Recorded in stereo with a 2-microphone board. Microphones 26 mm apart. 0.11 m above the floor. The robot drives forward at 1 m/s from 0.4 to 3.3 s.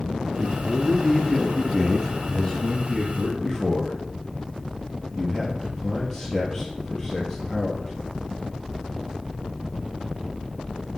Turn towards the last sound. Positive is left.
turn(degrees=20)  # may be behind; listen again after turning